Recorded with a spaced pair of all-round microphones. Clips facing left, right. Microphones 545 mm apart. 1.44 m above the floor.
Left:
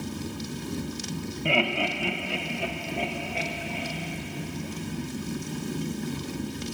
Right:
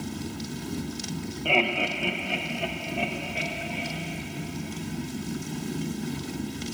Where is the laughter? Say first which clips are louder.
Even; 45° left (ahead or behind), 1.2 m; by 4.0 s 45° right (ahead or behind), 3.5 m.